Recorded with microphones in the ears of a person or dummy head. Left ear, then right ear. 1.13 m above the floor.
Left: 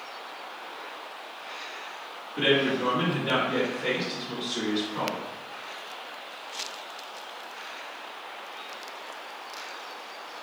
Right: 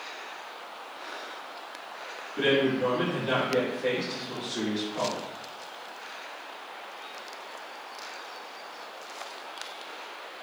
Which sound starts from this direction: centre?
A man speaking, at 2.4 s.